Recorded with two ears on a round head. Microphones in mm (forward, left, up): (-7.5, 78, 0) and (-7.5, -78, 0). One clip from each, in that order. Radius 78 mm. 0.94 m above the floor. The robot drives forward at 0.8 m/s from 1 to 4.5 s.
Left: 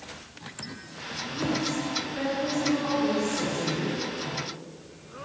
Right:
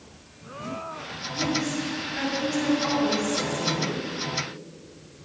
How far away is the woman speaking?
About 4 m.